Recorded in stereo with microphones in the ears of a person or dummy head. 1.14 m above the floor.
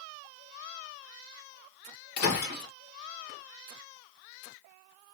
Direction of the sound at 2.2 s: 55° left (ahead or behind).